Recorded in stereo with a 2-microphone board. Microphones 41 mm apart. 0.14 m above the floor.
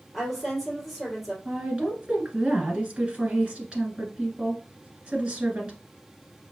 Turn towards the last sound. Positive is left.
turn(degrees=-25)  # may be behind; listen again after turning